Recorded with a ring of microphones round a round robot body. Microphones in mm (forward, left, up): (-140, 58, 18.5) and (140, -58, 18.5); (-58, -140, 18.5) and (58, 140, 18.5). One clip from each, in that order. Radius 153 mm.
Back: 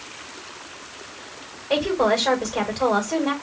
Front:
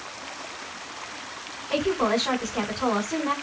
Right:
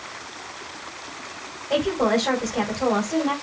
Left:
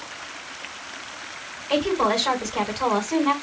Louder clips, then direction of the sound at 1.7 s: Back 4 dB, even; 100° left.